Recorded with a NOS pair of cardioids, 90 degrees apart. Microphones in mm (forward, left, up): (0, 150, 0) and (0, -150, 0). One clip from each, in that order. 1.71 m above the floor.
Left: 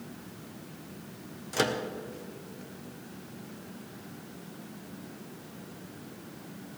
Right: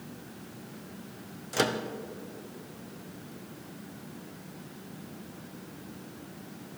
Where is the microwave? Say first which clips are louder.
Even; 5° right, 1.1 m.